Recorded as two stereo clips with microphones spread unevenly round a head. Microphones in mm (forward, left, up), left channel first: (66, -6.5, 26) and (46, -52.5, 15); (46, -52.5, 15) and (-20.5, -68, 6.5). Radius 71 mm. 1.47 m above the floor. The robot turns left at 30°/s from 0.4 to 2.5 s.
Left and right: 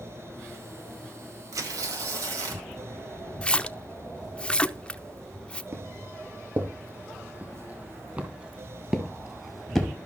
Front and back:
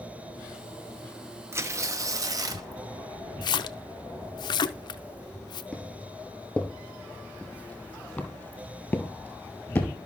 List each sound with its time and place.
1.5 s tearing paper: 120° right, 1.1 m; by 2.7 s 150° right, 1.1 m
3.4 s a splash: 5° right, 0.6 m
5.7 s footsteps: 65° right, 4 m; by 10.0 s 20° left, 1.5 m